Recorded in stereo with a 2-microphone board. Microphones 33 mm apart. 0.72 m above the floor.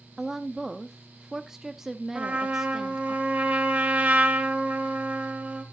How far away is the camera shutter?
No camera shutter in this recording.